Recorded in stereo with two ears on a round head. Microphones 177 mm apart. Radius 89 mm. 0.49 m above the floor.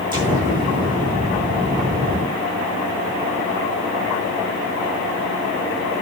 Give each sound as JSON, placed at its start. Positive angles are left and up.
{"t": 0.1, "sound": "an explosion", "side_deg": -25, "distance_m": 6.5}